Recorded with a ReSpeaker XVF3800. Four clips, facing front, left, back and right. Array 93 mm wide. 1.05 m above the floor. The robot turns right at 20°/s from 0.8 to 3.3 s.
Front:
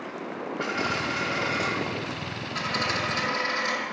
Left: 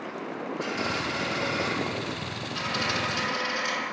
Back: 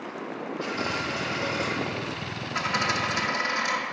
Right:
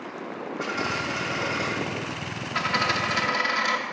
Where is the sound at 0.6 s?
25° right, 2.0 m; by 1.7 s 5° right, 2.0 m.